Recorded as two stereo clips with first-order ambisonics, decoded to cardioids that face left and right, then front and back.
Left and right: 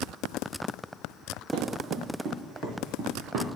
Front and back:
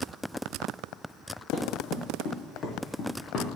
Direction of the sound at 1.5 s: 35° right.